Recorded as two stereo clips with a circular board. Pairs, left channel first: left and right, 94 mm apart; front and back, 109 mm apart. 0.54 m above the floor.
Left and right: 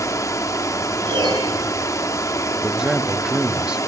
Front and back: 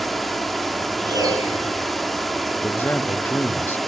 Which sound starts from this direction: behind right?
A piano, at 1.1 s.